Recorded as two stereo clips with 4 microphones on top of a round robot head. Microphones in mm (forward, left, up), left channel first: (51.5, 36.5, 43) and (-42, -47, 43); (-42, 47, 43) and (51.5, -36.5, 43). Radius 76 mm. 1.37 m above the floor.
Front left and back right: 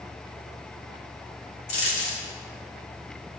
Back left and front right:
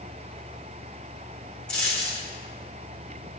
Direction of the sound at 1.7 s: 60° left.